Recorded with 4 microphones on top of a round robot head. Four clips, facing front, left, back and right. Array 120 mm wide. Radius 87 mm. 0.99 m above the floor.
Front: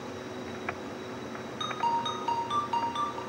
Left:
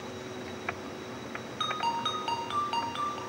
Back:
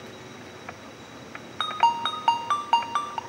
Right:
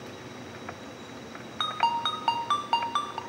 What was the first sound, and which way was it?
A ringtone, 155° right.